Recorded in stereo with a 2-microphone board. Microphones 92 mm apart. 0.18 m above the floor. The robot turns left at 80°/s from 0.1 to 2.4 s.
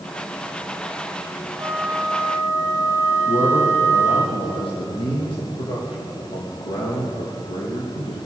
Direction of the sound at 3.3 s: 75° left (ahead or behind).